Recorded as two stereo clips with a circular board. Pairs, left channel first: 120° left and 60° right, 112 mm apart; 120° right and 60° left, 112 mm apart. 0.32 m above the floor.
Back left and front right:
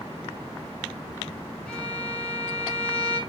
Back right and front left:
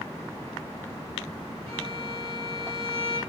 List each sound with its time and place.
1.7 s a violin: 40° left, 1.0 m